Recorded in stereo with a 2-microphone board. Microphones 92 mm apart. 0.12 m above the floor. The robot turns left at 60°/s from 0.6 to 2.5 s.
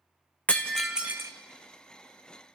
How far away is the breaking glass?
About 1.7 m.